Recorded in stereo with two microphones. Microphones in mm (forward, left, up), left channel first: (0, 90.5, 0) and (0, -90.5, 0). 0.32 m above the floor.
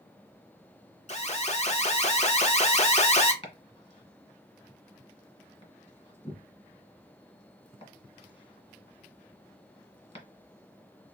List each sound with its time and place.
1.1 s an alarm: 40° left (ahead or behind), 0.9 m
3.4 s chopping: 40° left (ahead or behind), 1.8 m